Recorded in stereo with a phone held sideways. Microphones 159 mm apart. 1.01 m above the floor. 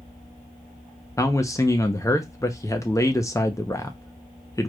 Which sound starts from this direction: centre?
A man speaking, at 1.2 s.